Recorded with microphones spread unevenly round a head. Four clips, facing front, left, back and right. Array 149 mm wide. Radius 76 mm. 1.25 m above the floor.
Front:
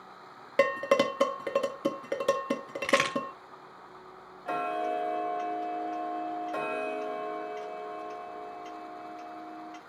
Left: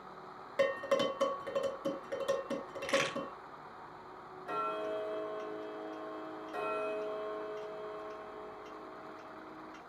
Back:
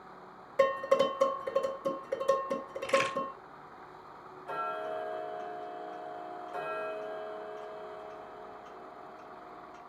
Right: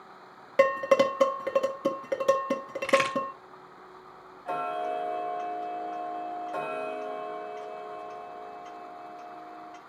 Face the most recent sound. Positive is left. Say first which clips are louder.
# right 6 dB, front 6 dB
turn(degrees=-30)